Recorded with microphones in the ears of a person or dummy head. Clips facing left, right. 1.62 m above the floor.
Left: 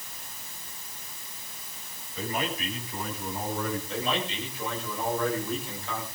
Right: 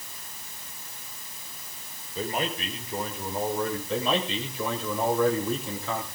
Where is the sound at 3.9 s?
75° right (ahead or behind), 8.5 m.